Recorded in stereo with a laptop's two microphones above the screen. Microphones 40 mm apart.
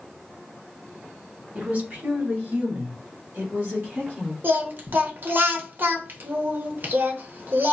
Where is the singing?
45° right (ahead or behind), 0.7 m.